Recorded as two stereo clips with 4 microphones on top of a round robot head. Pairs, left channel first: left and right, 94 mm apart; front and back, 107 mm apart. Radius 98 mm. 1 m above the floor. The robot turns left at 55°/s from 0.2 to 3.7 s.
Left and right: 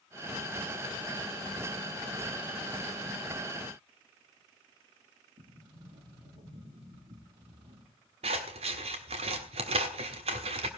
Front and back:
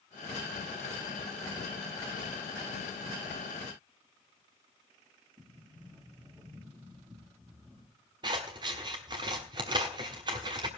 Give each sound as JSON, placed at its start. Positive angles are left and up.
{"t": 5.4, "sound": "a sliding door", "azimuth_deg": -105, "distance_m": 2.5}
{"t": 8.2, "sound": "scissors", "azimuth_deg": -120, "distance_m": 1.4}